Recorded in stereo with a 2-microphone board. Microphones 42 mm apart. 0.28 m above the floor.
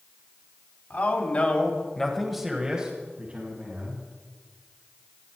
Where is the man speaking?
45° left (ahead or behind), 2 m; by 4.0 s 35° right (ahead or behind), 3 m.